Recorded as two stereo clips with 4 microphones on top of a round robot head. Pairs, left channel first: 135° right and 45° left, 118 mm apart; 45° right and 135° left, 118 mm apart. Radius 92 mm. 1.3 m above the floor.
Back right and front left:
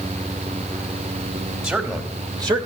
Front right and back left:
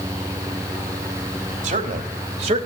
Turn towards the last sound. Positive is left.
turn(degrees=95)